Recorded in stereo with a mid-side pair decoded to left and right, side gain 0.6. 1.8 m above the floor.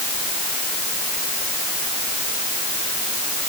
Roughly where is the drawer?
No drawer in this recording.